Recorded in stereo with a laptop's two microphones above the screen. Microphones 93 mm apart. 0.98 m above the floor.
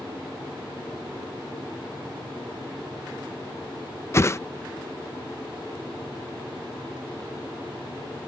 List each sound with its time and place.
4.1 s a whoosh: 30° left (ahead or behind)